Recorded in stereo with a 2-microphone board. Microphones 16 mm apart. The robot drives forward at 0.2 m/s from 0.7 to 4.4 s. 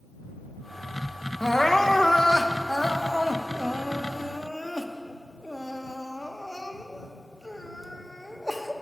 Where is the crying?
30° left (ahead or behind), 0.7 m; by 8.7 s 25° left (ahead or behind), 0.8 m.